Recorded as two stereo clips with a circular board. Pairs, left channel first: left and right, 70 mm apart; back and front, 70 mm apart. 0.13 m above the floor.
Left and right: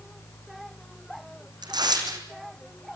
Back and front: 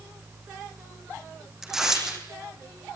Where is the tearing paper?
85° right, 5.5 m.